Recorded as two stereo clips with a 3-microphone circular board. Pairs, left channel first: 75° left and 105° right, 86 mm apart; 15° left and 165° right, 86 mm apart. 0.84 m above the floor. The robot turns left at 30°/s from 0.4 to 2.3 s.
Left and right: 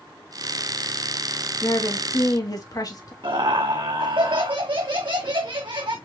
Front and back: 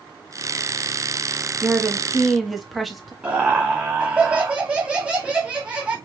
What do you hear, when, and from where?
1.6 s a woman speaking: 125° left, 1.1 m; by 3.1 s 105° left, 1.1 m
3.2 s laughter: 90° right, 1.2 m